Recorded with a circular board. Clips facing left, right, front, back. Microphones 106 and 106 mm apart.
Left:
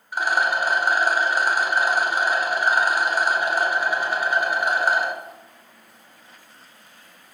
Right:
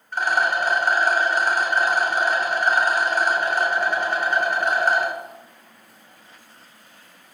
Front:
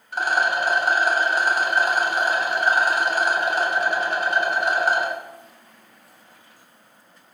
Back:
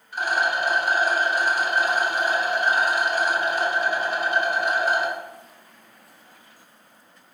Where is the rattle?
10° left, 1.6 m.